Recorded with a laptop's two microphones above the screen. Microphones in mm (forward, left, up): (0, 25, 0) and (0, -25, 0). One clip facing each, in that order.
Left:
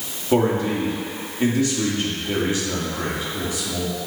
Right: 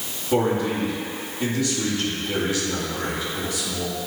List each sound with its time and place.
0.3 s a man speaking: 30° left (ahead or behind), 2.5 m